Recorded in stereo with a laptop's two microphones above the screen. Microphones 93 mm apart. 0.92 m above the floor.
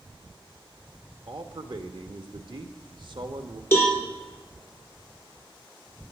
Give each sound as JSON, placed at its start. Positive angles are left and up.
{"t": 1.3, "sound": "a man speaking", "side_deg": -60, "distance_m": 1.2}
{"t": 3.7, "sound": "a cowbell", "side_deg": 30, "distance_m": 4.5}